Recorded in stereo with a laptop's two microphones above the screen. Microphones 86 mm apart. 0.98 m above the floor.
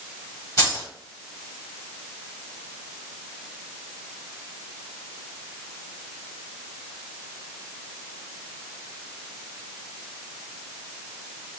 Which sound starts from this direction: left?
Keys jangling, at 0.6 s.